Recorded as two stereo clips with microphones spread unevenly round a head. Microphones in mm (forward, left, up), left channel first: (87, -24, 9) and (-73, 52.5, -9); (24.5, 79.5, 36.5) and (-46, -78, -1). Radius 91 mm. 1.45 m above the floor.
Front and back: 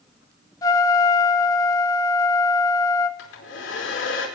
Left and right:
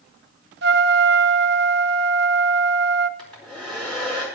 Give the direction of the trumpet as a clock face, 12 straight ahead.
3 o'clock.